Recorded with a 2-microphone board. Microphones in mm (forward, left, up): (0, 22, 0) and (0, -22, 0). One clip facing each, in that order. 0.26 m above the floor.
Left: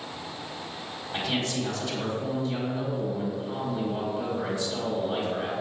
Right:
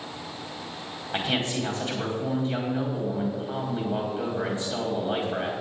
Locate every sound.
1.1 s a man speaking: 35° right (ahead or behind), 1.8 m